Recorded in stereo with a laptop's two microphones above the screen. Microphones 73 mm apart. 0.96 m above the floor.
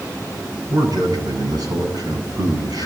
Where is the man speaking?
70° right (ahead or behind), 8 m.